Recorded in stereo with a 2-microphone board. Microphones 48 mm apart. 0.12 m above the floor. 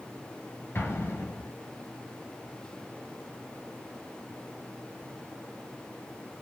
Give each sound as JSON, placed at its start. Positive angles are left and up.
{"t": 0.8, "sound": "an explosion", "side_deg": 55, "distance_m": 0.8}